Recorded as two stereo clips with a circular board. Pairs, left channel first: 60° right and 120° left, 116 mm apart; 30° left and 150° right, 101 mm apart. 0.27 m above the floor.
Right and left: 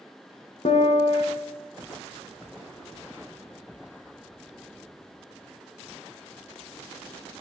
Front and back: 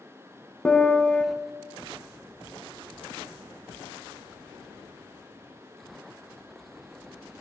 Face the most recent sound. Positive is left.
turn(degrees=-45)